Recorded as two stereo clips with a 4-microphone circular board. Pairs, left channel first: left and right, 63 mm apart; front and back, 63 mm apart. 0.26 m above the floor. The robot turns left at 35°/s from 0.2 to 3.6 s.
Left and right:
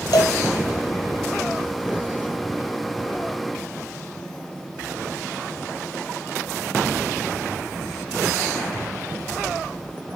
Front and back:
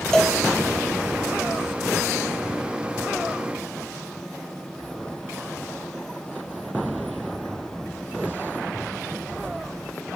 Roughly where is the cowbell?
Left.